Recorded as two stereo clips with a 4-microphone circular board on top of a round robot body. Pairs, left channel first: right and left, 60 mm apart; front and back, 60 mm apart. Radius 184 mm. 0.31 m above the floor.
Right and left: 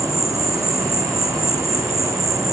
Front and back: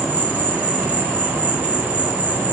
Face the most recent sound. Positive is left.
turn(degrees=120)